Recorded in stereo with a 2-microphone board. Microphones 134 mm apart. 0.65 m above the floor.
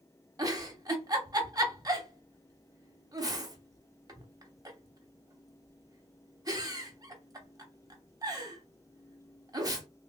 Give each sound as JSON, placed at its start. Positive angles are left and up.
{"t": 0.4, "sound": "a giggle", "side_deg": -25, "distance_m": 0.7}